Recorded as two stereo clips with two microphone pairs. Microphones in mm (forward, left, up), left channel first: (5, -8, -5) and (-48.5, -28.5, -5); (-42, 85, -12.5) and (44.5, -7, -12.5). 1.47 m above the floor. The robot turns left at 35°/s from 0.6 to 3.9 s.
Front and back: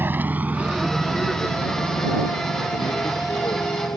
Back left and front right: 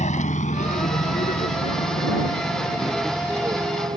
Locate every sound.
0.0 s a vehicle: 150° left; by 4.0 s 5° left